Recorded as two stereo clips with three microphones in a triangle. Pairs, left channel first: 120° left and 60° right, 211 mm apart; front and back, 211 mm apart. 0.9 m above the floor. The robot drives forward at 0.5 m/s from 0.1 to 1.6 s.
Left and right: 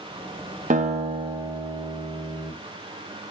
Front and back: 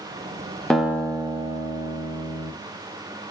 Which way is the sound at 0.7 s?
85° right.